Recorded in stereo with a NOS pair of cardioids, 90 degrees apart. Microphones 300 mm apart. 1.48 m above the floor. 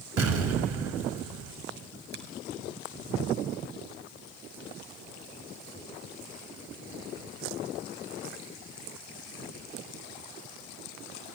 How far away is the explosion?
About 6 m.